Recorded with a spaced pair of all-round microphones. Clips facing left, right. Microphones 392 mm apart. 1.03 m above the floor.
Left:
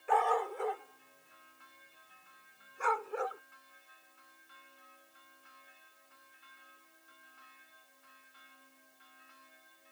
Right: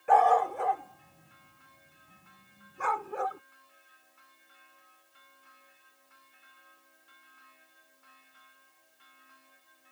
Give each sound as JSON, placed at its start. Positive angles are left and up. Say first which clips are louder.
{"t": 0.1, "sound": "a dog barking", "louder": "right 6 dB", "side_deg": -75}